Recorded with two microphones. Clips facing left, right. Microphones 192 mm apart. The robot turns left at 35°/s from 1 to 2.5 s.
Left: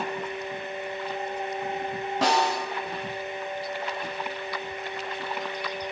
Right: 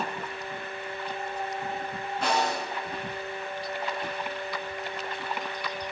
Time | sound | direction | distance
2.2 | a snare drum | 75° left (ahead or behind) | 6 m